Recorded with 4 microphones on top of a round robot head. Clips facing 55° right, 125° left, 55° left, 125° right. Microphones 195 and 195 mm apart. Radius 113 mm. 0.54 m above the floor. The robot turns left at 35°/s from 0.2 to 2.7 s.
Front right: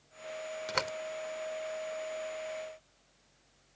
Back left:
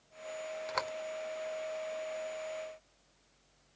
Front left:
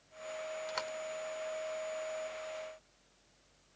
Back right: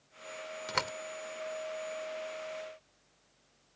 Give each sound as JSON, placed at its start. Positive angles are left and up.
{"t": 0.7, "sound": "a door slam", "azimuth_deg": -110}